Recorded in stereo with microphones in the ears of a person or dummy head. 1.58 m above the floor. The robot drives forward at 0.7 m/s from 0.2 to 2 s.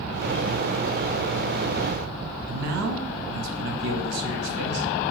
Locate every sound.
2.5 s a man speaking: 65° right (ahead or behind), 0.5 m